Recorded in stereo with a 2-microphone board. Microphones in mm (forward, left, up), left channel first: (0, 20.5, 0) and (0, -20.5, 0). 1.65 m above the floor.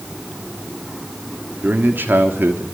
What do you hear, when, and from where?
1.6 s a man speaking: 55° right (ahead or behind), 3.5 m; by 2.6 s 65° right (ahead or behind), 3 m